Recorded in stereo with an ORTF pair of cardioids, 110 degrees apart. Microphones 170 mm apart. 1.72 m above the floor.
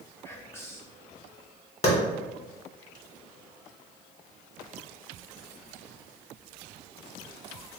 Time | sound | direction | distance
0.2 | whispering | 15° left | 0.5 m
1.8 | a clap | 35° left | 1.7 m